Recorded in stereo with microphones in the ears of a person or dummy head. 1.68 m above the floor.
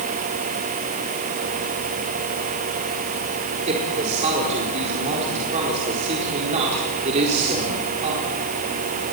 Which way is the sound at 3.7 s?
35° right (ahead or behind).